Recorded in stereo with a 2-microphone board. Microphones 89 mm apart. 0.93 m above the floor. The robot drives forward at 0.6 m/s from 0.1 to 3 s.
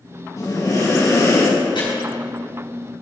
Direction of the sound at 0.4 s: 45° left (ahead or behind).